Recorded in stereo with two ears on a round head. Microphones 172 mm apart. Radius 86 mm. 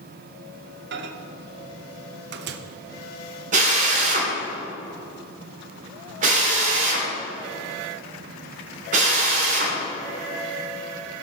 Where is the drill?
45° right (ahead or behind), 2.5 m.